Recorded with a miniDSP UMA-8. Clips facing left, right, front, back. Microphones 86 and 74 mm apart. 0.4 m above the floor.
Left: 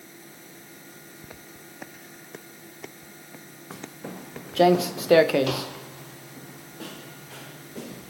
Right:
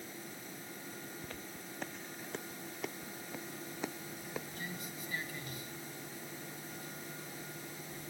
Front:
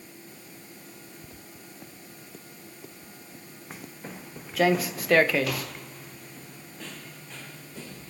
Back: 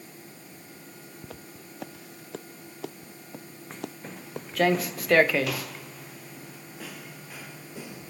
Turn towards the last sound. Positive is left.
turn(degrees=105)